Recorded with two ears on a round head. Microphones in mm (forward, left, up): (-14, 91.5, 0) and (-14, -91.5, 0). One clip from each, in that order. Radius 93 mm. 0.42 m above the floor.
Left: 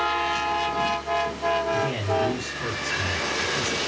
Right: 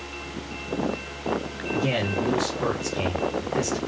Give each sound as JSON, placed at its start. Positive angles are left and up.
{"t": 1.7, "sound": "a man speaking", "side_deg": -65, "distance_m": 3.5}